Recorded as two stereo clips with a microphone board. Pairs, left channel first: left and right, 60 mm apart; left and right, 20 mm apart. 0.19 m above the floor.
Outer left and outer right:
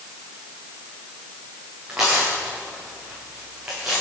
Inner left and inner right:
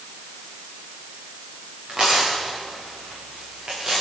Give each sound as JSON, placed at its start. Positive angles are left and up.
{"t": 1.9, "sound": "tearing paper", "side_deg": -15, "distance_m": 9.5}